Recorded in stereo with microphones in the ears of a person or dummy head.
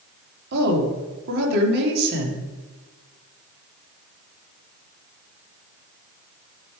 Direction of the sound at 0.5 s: 55° right (ahead or behind).